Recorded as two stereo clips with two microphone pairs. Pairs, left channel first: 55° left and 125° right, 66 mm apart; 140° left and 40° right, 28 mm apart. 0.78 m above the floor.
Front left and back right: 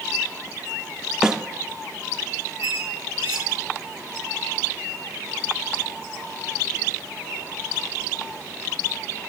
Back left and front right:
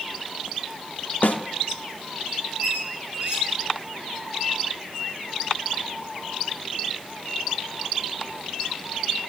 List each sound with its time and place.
1.2 s a snare drum: 150° left, 0.8 m
2.6 s a squeak: 90° right, 3.5 m